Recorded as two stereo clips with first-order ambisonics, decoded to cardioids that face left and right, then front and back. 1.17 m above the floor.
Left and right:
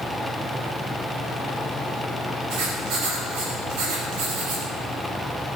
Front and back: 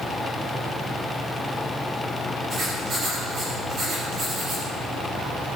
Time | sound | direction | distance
2.5 | writing | 115° right | 6 m